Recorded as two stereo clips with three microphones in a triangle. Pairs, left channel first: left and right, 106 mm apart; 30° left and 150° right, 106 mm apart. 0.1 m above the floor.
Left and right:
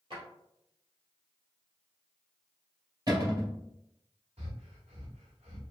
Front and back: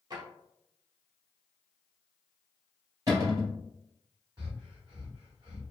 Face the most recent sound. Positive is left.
turn(degrees=-95)